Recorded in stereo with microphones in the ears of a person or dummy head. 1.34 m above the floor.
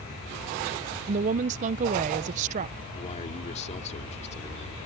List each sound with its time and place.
1.1 s a woman speaking: 40° right (ahead or behind)
2.9 s a man speaking: 35° left (ahead or behind)